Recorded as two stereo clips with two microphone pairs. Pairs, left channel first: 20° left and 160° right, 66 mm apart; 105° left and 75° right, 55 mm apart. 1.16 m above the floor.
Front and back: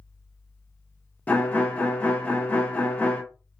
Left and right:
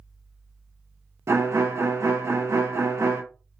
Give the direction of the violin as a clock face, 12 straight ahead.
2 o'clock.